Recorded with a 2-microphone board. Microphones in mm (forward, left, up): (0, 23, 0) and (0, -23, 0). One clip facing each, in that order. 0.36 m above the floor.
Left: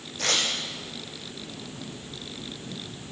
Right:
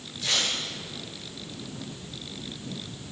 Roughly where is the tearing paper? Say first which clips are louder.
Left 2 dB; left.